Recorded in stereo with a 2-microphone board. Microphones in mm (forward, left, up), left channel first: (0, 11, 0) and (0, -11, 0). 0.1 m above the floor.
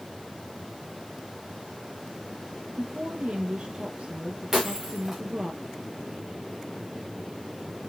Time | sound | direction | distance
2.8 | a woman speaking | 55° right (ahead or behind) | 2.5 m
4.5 | breaking glass | 15° right (ahead or behind) | 3 m